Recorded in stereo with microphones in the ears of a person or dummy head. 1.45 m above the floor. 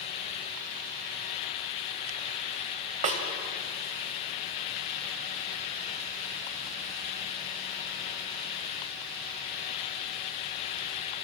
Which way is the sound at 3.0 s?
35° right (ahead or behind).